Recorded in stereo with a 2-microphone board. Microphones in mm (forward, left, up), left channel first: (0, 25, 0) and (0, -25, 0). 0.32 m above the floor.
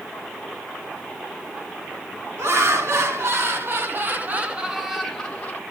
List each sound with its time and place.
2.4 s laughter: 70° right (ahead or behind), 2.5 m; by 5.6 s 25° left (ahead or behind), 1.2 m